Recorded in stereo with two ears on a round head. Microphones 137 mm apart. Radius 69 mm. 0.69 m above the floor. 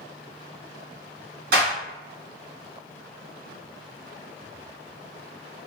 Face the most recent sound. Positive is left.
turn(degrees=-70)  # may be behind; listen again after turning